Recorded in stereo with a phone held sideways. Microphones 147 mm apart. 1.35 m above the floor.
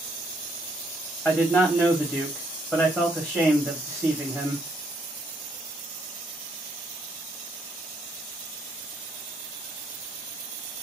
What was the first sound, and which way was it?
A man speaking, 5° left (ahead or behind).